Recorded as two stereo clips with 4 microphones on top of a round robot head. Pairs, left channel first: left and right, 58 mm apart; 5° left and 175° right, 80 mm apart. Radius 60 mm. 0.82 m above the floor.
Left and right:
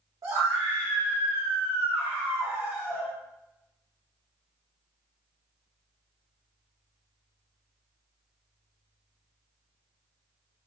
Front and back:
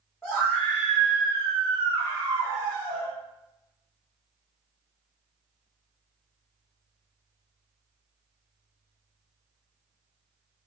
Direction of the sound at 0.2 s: 80° right.